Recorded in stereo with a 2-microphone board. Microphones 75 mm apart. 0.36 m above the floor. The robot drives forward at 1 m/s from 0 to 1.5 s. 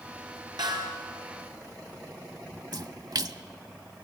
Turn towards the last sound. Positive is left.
turn(degrees=-60)  # may be behind; listen again after turning